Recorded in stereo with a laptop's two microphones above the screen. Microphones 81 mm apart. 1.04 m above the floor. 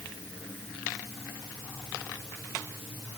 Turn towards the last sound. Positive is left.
No sound to turn to.